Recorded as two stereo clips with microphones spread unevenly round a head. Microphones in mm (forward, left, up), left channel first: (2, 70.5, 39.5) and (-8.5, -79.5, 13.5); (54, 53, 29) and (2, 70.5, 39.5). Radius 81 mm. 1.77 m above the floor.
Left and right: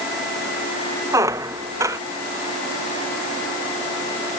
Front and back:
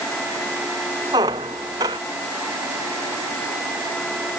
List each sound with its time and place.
1.1 s a squeak: 165° right